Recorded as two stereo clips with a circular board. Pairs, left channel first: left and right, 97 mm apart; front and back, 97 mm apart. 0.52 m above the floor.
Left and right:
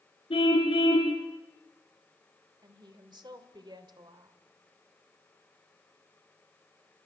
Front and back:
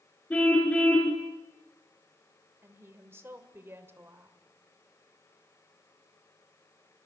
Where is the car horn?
75° left, 3.5 m.